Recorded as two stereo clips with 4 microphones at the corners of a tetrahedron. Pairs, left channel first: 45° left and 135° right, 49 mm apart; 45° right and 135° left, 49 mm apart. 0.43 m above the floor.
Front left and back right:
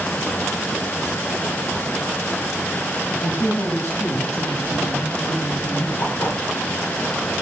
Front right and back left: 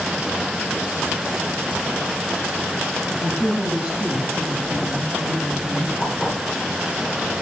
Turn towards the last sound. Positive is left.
turn(degrees=65)